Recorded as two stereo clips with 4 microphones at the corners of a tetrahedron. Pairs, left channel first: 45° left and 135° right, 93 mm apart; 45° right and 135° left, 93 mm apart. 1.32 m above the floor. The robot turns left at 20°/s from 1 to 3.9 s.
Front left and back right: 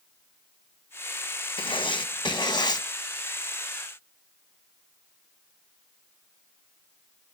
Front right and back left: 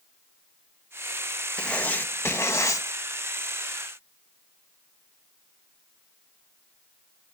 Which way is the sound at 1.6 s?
35° left.